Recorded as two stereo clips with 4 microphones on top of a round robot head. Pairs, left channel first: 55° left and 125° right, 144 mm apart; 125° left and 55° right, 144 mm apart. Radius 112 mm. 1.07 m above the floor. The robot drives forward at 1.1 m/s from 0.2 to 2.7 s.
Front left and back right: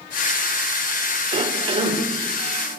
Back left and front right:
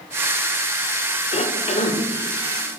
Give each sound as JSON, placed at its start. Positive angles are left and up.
{"t": 1.3, "sound": "a cough", "azimuth_deg": 175, "distance_m": 3.0}